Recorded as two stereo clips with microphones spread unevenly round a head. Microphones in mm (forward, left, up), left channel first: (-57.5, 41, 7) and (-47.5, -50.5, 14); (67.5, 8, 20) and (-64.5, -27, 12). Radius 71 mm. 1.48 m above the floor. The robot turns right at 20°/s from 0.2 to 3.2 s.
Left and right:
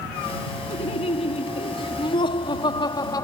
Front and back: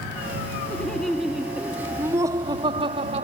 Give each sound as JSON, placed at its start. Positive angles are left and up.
{"t": 0.7, "sound": "laughter", "azimuth_deg": 95}